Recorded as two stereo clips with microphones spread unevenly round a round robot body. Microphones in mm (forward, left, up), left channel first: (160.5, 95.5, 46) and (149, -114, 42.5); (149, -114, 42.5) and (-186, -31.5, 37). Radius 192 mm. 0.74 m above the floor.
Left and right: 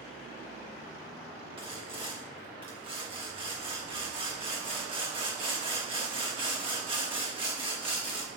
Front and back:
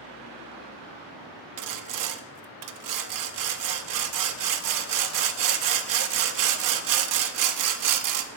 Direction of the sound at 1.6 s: 165° right.